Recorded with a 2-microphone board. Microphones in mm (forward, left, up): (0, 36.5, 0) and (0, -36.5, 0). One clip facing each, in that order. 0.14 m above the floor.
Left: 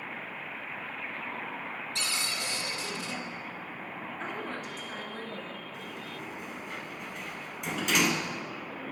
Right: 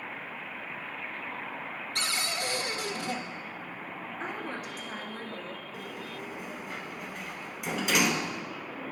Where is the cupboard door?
55° right (ahead or behind), 0.9 m.